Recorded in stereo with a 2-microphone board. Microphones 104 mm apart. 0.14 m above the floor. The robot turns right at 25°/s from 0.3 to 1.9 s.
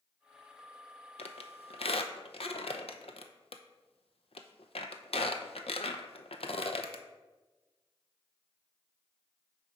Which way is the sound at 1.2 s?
90° left.